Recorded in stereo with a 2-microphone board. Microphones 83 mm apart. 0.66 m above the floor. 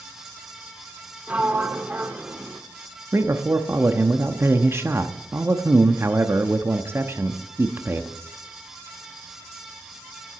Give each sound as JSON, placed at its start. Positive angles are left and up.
{"t": 1.3, "sound": "a sliding door", "side_deg": -20, "distance_m": 1.0}
{"t": 3.1, "sound": "a man speaking", "side_deg": -30, "distance_m": 0.8}